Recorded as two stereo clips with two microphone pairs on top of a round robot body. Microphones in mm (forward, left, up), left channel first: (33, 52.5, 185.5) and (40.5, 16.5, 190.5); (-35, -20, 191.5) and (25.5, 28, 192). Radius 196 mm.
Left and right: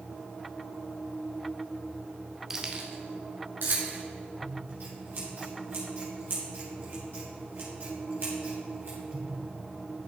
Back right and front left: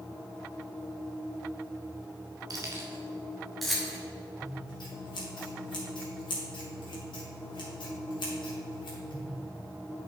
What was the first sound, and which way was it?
Keys jangling, straight ahead.